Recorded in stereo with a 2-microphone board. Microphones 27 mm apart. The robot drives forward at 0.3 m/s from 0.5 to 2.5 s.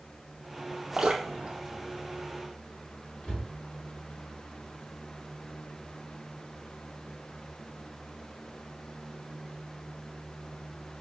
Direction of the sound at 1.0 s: 45° right (ahead or behind).